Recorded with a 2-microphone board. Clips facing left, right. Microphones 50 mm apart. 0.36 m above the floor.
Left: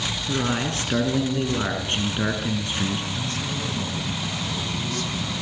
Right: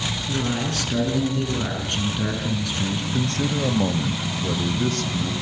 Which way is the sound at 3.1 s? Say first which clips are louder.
Right 5 dB; 60° right (ahead or behind).